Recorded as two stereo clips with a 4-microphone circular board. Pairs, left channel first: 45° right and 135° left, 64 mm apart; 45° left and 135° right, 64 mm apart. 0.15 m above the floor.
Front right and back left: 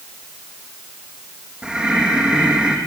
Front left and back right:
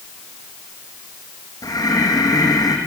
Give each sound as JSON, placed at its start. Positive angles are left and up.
{"t": 1.6, "sound": "breathing", "azimuth_deg": 60, "distance_m": 4.0}